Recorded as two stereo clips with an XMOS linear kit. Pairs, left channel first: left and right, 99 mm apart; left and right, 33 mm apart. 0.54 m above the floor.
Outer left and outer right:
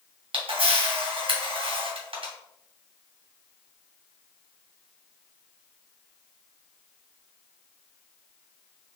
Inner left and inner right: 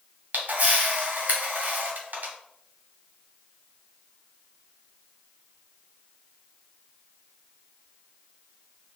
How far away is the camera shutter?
About 1.8 m.